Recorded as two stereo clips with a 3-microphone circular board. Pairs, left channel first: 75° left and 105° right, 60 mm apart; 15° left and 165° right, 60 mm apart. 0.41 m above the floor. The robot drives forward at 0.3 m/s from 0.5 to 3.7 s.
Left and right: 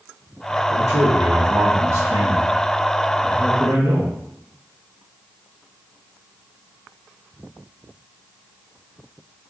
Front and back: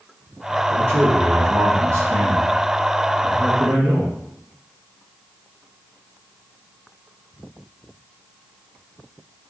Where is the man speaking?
135° right, 2 m; by 4.1 s 150° right, 3 m.